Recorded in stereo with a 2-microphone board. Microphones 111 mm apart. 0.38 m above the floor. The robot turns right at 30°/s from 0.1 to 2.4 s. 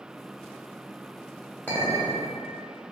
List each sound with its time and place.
1.7 s a clink: 15° left (ahead or behind), 0.7 m; by 2.2 s 5° left (ahead or behind), 0.7 m